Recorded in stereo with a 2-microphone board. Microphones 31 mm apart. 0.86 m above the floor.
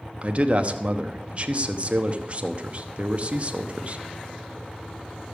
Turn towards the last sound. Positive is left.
turn(degrees=-35)  # may be behind; listen again after turning